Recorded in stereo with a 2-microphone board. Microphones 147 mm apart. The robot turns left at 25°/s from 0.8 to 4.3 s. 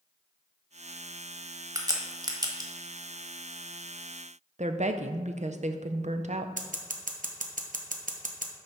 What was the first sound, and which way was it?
A crack, 25° right (ahead or behind).